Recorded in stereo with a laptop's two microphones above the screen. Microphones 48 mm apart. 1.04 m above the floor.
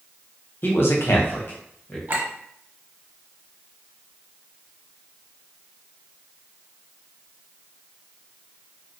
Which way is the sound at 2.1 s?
50° right (ahead or behind).